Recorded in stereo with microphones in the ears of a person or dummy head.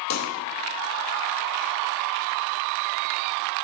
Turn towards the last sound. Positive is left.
turn(degrees=80)